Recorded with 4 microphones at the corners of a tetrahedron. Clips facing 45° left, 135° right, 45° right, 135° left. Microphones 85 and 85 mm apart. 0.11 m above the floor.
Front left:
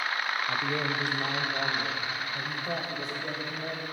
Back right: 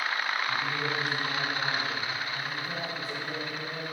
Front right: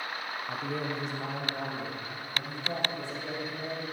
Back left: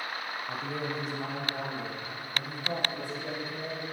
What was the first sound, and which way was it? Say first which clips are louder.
A man speaking: front left 1 dB, front right 1 dB; 45° left.